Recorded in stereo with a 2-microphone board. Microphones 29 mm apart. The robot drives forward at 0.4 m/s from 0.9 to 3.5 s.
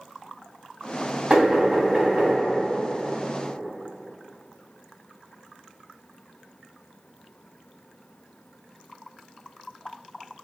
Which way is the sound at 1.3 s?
45° right (ahead or behind).